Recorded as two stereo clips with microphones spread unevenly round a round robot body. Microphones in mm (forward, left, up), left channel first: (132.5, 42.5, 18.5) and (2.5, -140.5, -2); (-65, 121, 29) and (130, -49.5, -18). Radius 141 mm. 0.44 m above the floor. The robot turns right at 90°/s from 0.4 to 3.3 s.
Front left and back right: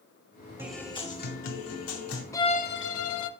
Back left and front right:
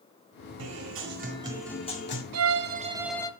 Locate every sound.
0.6 s a guitar: 50° right, 1.6 m; by 2.2 s 100° left, 1.6 m
2.3 s a violin: 25° right, 0.6 m; by 3.3 s 60° left, 0.6 m